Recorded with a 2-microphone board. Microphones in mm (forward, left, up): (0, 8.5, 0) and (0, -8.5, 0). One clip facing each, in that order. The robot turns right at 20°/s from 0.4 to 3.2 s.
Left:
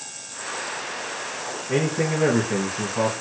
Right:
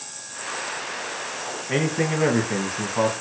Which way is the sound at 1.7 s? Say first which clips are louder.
Even; 35° right (ahead or behind).